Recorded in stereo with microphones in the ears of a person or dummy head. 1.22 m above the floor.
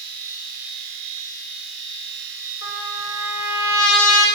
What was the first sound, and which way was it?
A machine running, 70° right (ahead or behind).